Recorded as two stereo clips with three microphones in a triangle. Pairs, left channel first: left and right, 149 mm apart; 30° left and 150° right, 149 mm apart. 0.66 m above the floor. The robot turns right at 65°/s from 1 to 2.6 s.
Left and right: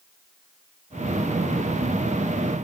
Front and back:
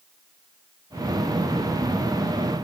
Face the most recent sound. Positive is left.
No sound to turn to.